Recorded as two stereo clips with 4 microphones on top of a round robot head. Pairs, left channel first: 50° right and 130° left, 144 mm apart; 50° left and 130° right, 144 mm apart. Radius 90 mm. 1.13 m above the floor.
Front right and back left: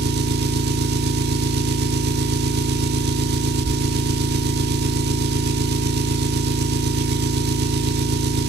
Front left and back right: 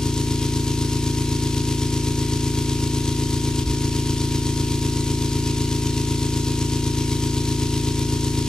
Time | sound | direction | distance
0.0 | an engine running | 135° left | 1.2 m